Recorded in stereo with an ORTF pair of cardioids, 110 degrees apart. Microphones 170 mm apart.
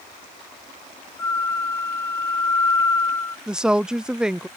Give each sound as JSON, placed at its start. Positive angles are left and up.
{"t": 1.2, "sound": "a flute", "azimuth_deg": 15}
{"t": 3.5, "sound": "a woman speaking", "azimuth_deg": -5}